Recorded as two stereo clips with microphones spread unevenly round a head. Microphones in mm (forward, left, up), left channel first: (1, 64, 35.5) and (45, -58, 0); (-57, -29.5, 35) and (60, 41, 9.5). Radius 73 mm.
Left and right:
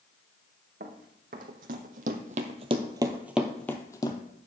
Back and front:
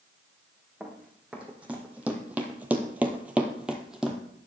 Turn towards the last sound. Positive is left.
turn(degrees=130)